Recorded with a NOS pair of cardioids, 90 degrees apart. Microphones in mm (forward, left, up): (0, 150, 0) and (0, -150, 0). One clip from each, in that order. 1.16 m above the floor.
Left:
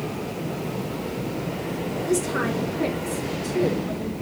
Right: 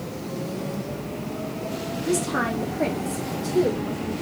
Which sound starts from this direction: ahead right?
A woman speaking, at 2.1 s.